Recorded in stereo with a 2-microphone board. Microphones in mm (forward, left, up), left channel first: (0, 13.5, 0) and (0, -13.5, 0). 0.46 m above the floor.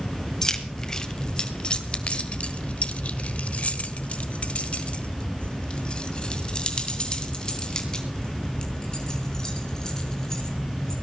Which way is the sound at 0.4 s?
25° left (ahead or behind).